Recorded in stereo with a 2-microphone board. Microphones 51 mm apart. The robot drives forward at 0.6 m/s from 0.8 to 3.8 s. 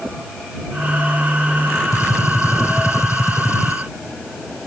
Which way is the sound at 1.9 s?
80° left.